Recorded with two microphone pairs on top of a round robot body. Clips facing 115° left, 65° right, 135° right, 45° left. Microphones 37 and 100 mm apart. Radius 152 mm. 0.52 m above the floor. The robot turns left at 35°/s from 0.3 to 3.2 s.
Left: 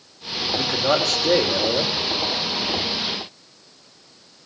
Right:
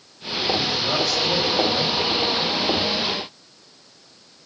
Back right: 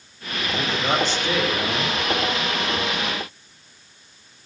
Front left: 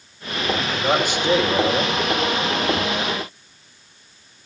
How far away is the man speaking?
About 3 m.